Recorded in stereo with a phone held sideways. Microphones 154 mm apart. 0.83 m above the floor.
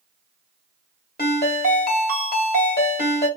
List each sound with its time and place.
1.2 s a ringtone: 75° left (ahead or behind), 1.2 m